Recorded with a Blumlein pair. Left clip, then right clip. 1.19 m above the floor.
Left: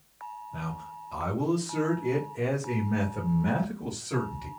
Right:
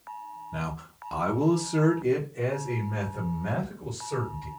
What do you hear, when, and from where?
0.5 s a man speaking: 60° right, 0.9 m; by 4.5 s 30° left, 2 m